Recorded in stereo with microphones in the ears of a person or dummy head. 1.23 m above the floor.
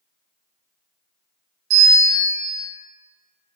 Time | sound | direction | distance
1.7 | a bell | 60° right (ahead or behind) | 1.0 m